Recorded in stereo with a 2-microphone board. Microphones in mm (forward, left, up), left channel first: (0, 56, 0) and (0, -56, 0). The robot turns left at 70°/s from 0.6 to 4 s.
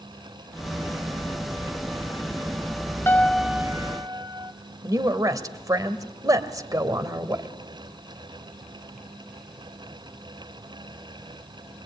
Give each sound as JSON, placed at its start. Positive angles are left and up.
{"t": 3.1, "sound": "a piano", "azimuth_deg": 20, "distance_m": 1.0}
{"t": 4.8, "sound": "a woman speaking", "side_deg": -30, "distance_m": 1.9}